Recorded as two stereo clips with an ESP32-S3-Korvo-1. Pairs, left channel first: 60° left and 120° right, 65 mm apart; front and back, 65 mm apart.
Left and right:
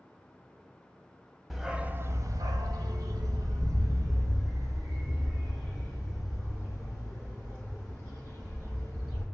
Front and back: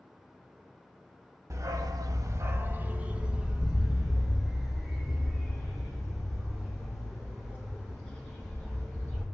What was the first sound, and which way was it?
A dog barking, 150° left.